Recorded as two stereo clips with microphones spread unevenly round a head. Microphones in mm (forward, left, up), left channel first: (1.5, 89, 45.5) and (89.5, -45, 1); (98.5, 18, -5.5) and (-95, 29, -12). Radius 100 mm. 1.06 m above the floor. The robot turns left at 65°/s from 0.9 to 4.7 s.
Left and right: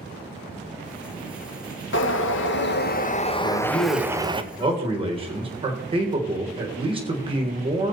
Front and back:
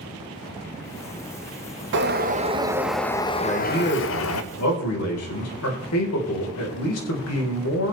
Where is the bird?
155° left, 1.0 m; by 4.4 s 10° right, 1.0 m.